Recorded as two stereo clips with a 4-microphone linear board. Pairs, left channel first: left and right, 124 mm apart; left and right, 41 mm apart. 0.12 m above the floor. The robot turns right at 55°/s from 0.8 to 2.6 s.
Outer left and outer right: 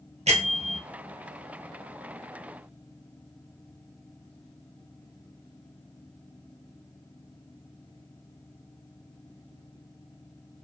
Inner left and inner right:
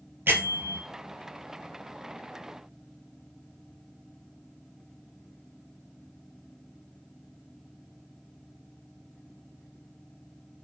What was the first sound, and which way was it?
A bell, 65° right (ahead or behind).